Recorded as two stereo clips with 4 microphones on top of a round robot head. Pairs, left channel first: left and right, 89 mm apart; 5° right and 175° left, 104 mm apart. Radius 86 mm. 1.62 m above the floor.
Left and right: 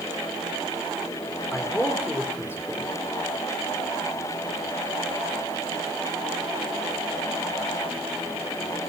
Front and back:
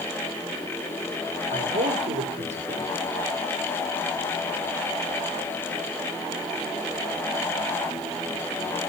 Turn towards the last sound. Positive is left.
turn(degrees=155)